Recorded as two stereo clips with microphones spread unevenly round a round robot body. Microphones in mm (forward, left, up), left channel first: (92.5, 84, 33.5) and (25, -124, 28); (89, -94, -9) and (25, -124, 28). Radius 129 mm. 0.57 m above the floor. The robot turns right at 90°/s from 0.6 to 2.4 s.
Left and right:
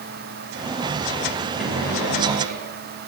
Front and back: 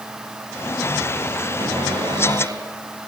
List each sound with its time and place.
1.6 s a cupboard door: 165° left, 7.5 m; by 2.6 s 125° right, 7.5 m